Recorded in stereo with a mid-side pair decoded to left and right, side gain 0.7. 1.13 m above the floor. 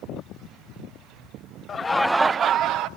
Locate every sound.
1.7 s laughter: 30° left, 0.7 m; by 2.9 s 55° right, 0.9 m